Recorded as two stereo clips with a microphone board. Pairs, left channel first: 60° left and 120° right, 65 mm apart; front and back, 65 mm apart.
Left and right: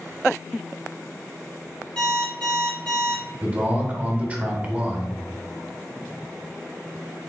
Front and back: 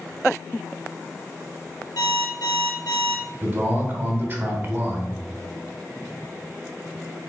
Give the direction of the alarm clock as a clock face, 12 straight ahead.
1 o'clock.